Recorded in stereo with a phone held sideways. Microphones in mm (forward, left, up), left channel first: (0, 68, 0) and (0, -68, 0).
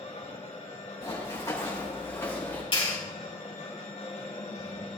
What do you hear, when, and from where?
0.0 s a machine running: 60° left (ahead or behind), 2.5 m
1.0 s running footsteps: 25° left (ahead or behind), 5 m; by 2.6 s 15° left (ahead or behind), 5.5 m
2.7 s a clap: 40° left (ahead or behind), 3.5 m